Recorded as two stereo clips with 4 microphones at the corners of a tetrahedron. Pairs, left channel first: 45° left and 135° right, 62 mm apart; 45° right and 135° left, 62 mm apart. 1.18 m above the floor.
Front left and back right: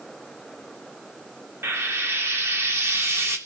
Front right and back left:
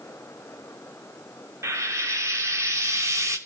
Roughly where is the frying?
Behind.